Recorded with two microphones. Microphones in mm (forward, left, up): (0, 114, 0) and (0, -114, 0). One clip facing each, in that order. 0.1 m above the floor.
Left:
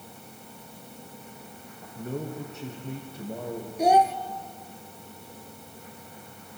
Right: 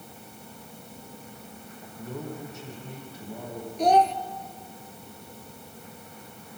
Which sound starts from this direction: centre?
A child speaking, at 3.8 s.